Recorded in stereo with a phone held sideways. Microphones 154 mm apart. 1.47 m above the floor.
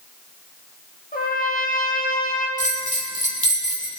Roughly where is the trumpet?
Left.